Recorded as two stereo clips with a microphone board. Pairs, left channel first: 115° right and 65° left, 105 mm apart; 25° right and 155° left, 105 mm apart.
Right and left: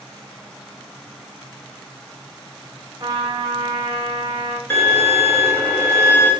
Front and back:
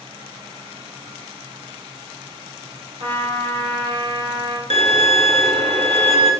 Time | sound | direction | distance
3.0 | a trumpet | 120° left | 2 m
4.7 | a violin | 175° left | 1.0 m